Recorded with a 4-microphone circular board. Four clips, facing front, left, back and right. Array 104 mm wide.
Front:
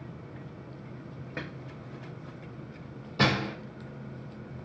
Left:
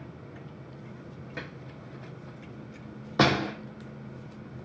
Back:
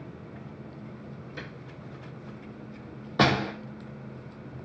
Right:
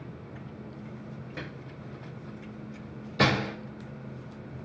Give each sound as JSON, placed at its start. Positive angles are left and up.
{"t": 1.4, "sound": "a drawer", "azimuth_deg": 10, "distance_m": 0.9}
{"t": 3.2, "sound": "a door slam", "azimuth_deg": 125, "distance_m": 0.7}